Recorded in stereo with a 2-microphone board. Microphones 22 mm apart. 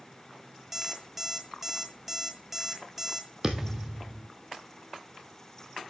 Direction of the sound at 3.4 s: 20° right (ahead or behind).